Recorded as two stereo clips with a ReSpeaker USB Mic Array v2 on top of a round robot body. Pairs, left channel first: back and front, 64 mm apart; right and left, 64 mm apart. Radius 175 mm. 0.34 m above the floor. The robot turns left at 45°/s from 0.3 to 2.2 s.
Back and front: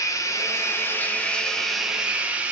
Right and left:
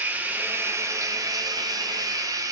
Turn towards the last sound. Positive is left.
turn(degrees=70)